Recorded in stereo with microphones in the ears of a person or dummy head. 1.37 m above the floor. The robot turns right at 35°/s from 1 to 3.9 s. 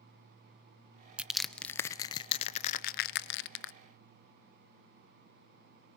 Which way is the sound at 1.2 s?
5° right (ahead or behind).